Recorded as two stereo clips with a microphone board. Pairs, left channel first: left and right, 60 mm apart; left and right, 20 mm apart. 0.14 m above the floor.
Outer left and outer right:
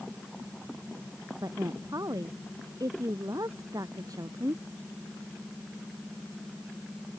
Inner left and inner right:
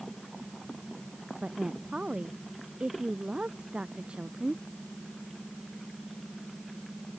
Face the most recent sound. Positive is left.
turn(degrees=-75)  # may be behind; listen again after turning